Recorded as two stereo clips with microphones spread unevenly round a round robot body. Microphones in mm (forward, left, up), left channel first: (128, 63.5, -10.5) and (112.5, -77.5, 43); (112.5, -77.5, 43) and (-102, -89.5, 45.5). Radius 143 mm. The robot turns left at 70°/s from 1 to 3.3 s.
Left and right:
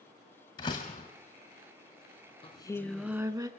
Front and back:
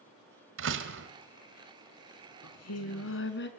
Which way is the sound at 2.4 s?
30° left.